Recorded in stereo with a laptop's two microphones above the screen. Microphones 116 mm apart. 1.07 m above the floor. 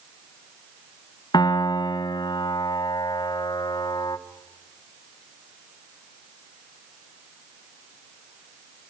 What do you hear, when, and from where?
1.3 s a piano: 40° left (ahead or behind), 1.1 m